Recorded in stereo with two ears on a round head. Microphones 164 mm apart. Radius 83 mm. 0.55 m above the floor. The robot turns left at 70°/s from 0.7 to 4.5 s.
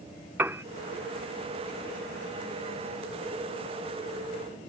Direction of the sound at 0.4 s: 10° right (ahead or behind).